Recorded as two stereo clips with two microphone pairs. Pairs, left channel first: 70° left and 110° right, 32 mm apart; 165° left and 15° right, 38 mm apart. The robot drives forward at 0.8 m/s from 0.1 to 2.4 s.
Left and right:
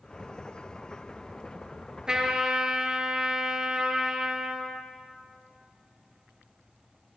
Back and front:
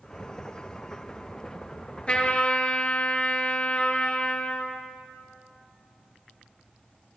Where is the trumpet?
155° right, 1.6 m; by 4.8 s 160° right, 1.7 m.